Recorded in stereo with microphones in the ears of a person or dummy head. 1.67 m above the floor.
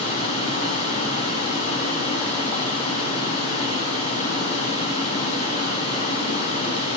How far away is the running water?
About 4.5 m.